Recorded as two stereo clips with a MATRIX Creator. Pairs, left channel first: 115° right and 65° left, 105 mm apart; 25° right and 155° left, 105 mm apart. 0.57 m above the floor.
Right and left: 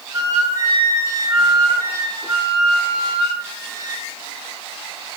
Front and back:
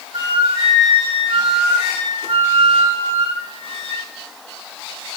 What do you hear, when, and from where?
0.1 s a flute: 120° left, 3 m